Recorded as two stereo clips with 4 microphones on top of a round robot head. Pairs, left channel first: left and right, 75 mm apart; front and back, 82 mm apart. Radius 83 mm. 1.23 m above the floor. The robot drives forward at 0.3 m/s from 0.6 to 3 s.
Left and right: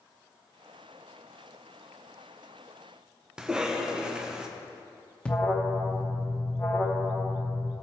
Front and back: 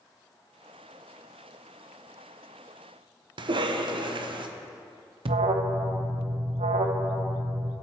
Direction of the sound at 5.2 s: 170° left.